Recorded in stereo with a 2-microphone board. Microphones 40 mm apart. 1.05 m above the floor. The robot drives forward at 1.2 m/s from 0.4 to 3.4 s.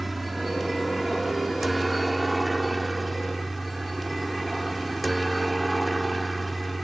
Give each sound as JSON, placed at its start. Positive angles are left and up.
{"t": 0.0, "sound": "a helicopter", "side_deg": 0}